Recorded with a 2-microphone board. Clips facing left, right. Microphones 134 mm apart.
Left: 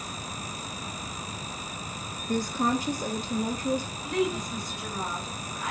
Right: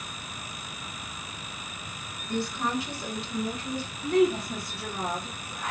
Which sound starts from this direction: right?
A woman speaking, at 4.0 s.